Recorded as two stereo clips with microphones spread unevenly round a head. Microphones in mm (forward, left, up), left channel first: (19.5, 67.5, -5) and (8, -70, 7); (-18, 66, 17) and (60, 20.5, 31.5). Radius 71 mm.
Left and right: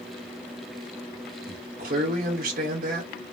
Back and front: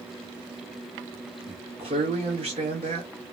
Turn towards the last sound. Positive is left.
turn(degrees=-70)